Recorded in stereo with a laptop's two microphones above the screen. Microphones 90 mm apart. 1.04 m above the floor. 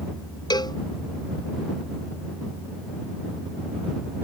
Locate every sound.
0.5 s a cowbell: 50° left (ahead or behind)